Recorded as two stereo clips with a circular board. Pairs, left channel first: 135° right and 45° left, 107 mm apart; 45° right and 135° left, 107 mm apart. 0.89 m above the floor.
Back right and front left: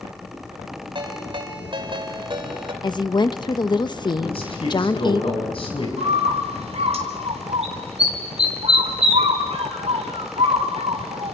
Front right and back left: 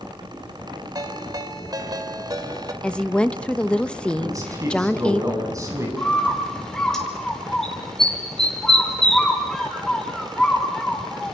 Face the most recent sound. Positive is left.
turn(degrees=40)